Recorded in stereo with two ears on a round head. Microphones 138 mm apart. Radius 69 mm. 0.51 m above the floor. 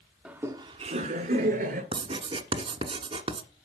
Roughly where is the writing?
Right.